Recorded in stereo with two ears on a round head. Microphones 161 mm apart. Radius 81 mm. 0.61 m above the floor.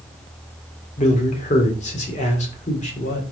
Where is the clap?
No clap in this recording.